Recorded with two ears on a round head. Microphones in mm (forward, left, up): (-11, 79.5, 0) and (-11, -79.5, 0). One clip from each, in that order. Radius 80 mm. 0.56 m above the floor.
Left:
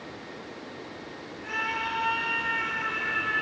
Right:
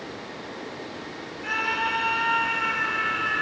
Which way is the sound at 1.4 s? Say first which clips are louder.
Right 4 dB; 35° right (ahead or behind).